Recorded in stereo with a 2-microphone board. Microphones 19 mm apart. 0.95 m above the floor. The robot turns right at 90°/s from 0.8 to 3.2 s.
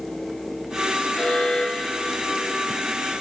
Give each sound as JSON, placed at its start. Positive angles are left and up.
{"t": 1.1, "sound": "an alarm", "azimuth_deg": 80, "distance_m": 3.5}